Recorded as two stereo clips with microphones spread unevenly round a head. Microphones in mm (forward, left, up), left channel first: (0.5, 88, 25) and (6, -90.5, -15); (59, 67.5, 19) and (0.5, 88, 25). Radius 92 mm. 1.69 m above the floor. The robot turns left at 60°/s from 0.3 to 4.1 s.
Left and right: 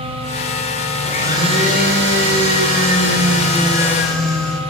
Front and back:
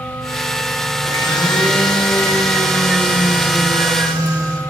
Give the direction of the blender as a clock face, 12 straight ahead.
12 o'clock.